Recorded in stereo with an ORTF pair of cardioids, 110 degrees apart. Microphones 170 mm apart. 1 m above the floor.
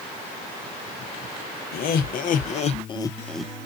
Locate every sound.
1.7 s laughter: 70° left, 1.2 m; by 3.5 s 5° right, 0.6 m